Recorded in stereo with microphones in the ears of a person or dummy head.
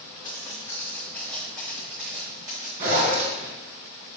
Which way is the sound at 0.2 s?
25° left (ahead or behind).